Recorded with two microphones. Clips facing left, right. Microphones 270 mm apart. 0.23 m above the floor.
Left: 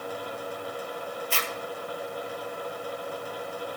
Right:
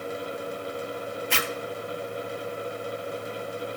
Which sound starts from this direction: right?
A zipper, at 1.3 s.